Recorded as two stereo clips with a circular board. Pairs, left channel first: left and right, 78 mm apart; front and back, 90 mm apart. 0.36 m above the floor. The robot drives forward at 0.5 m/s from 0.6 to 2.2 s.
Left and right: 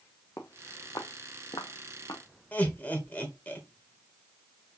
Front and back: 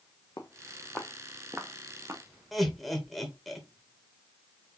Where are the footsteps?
40° left, 1.3 m; by 2.2 s 125° left, 2.0 m.